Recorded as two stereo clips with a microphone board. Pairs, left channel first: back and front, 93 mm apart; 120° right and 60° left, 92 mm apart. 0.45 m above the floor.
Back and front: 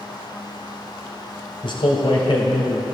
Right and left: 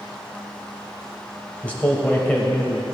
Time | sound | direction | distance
1.6 | a man speaking | 165° left | 1.9 m